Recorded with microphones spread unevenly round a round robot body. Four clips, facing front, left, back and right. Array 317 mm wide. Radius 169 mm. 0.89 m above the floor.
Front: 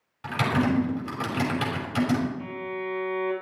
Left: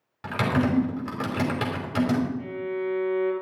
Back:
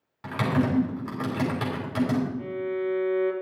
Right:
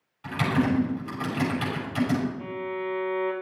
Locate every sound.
0.2 s typing on a keyboard: 100° left, 5 m
2.4 s a violin: 165° left, 5 m